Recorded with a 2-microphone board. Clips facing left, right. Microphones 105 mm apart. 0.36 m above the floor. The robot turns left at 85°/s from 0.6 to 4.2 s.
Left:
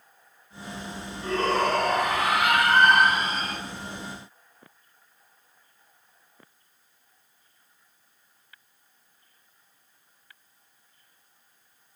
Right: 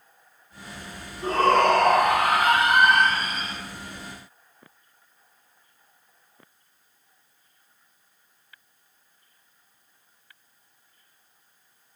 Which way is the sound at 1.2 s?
35° right.